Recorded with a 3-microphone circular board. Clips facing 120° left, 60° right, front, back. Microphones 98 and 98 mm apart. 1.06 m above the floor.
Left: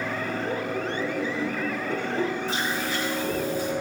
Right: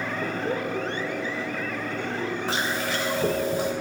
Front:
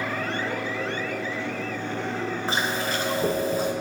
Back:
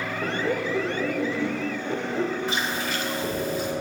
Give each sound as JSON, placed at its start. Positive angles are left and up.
{"t": 0.2, "sound": "laughter", "azimuth_deg": -120, "distance_m": 1.3}
{"t": 2.5, "sound": "chewing", "azimuth_deg": -55, "distance_m": 3.0}